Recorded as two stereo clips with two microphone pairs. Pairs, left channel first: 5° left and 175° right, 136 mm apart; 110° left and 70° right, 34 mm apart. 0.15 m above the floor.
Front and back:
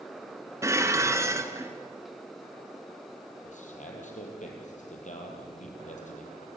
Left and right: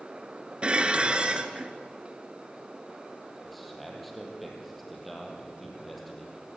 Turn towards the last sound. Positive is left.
turn(degrees=20)